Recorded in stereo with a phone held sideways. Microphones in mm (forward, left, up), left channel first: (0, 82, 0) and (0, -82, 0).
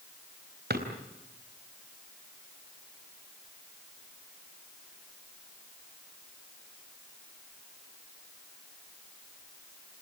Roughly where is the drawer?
Right.